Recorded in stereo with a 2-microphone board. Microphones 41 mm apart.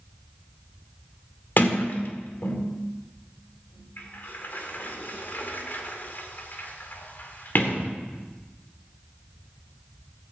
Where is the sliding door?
50° left (ahead or behind), 1.6 m.